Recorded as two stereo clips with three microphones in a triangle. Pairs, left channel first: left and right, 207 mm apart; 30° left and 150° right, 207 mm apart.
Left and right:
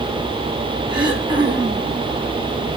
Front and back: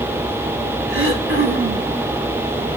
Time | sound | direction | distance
0.9 | throat clearing | 155° right | 4.5 m